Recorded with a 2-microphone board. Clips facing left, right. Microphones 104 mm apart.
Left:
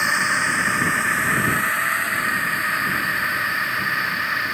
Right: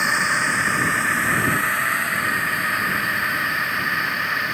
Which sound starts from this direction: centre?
A drone, at 0.0 s.